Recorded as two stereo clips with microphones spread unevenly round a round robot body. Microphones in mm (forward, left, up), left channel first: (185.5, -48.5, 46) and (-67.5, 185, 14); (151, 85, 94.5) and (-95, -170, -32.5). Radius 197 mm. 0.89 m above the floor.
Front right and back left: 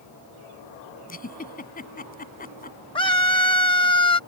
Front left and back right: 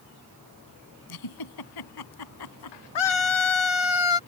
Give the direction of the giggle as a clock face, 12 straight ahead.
11 o'clock.